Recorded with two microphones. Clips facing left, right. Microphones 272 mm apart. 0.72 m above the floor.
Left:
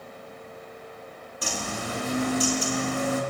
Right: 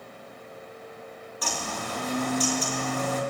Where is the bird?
30° left (ahead or behind), 2 m.